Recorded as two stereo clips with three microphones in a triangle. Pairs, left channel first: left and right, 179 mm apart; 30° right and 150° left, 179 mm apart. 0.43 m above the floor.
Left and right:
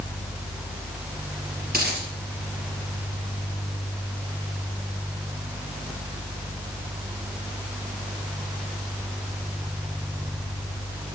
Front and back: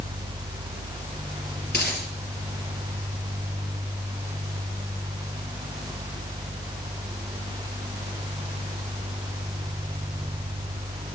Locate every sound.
1.7 s a dropped coin: 55° right, 3 m